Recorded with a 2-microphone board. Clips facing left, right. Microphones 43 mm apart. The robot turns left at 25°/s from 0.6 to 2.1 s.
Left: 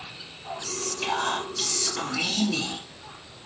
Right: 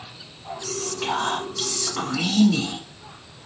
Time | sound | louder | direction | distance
0.6 | whispering | right 3 dB | 100° right | 1.8 m